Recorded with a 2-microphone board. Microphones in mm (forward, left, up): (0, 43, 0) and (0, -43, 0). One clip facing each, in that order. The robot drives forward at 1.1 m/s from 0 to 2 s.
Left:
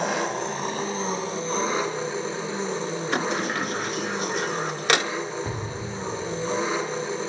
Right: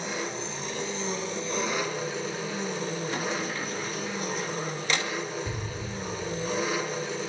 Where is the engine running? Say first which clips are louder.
Left 7 dB; 70° left (ahead or behind), 1.4 m; by 7.3 s 30° left (ahead or behind), 3 m.